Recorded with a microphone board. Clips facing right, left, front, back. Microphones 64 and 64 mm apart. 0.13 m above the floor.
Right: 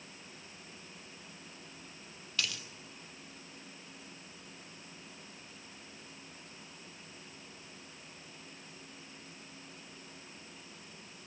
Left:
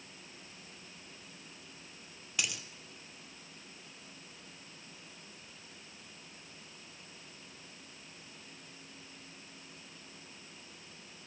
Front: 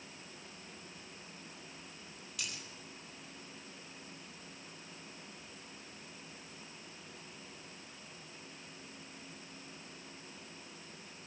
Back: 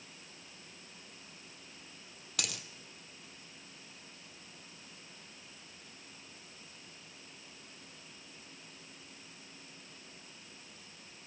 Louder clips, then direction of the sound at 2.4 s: Even, back 4 dB; 165° left.